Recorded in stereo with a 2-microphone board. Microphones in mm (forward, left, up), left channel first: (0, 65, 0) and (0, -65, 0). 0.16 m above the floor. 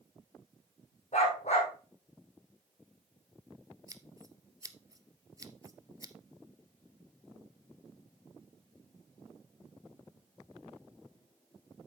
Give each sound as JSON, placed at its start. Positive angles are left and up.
{"t": 1.1, "sound": "a dog barking", "side_deg": 60, "distance_m": 3.5}
{"t": 3.9, "sound": "scissors", "side_deg": -25, "distance_m": 0.6}